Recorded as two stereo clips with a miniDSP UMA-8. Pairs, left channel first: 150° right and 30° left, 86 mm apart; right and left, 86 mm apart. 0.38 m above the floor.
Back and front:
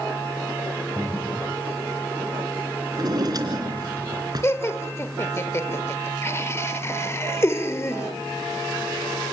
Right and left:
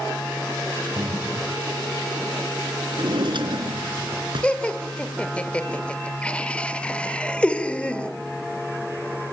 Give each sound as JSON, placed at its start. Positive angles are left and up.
{"t": 0.9, "sound": "breathing", "azimuth_deg": 140, "distance_m": 4.0}
{"t": 2.9, "sound": "a drawer", "azimuth_deg": 70, "distance_m": 3.0}
{"t": 4.4, "sound": "laughter", "azimuth_deg": -150, "distance_m": 1.0}